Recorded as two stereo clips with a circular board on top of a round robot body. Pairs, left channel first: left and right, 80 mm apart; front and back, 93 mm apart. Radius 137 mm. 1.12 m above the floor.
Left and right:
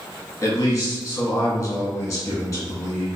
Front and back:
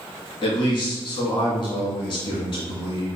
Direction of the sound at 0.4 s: 35° left.